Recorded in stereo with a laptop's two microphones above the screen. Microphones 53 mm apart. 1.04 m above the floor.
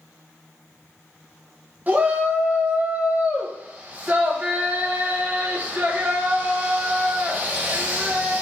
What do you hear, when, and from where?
1.9 s a shout: 30° right (ahead or behind), 0.7 m